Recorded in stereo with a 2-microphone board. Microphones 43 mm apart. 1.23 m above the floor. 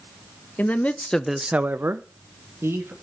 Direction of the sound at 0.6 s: 45° left (ahead or behind).